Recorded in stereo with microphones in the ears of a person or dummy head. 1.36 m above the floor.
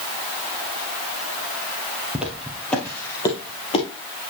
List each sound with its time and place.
2.1 s footsteps: 5° right (ahead or behind), 2.5 m; by 3.9 s 30° left (ahead or behind), 2.5 m